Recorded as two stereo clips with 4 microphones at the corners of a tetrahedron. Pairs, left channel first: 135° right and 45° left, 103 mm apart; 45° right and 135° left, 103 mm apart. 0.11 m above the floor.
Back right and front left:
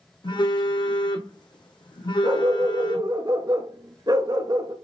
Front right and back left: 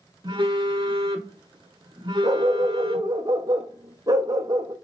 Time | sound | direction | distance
0.2 | a phone buzzing | straight behind | 1.3 m
2.2 | a dog barking | 90° left | 0.9 m